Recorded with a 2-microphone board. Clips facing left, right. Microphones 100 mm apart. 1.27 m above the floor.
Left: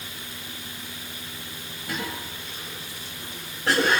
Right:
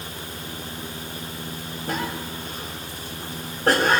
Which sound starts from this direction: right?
A cough, at 1.9 s.